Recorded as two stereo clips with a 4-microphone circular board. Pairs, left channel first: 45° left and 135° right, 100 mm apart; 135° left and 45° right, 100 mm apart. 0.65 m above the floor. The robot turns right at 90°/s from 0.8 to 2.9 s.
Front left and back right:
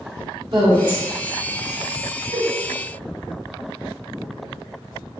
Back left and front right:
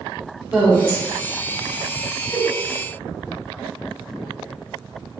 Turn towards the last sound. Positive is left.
turn(degrees=-130)